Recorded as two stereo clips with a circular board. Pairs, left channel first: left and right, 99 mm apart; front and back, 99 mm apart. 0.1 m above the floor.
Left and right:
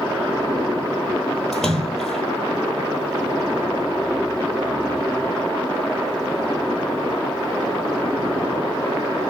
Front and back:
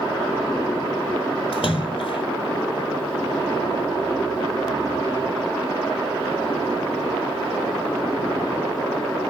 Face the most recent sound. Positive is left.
turn(degrees=5)